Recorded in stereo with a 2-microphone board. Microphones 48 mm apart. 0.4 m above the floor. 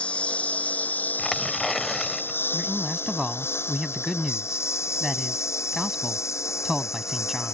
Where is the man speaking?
5° right (ahead or behind).